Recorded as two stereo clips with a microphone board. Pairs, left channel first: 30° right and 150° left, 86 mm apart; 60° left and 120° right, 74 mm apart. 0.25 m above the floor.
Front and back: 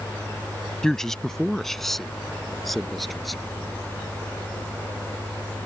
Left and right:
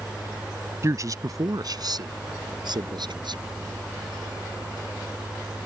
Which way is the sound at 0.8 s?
110° right.